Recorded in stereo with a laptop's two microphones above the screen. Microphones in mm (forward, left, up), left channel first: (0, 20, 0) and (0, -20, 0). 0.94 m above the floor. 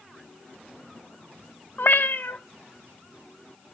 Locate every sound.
1.8 s a cat meowing: 55° left (ahead or behind), 0.9 m